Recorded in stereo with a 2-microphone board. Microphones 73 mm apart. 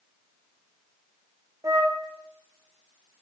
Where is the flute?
50° right (ahead or behind), 2 m.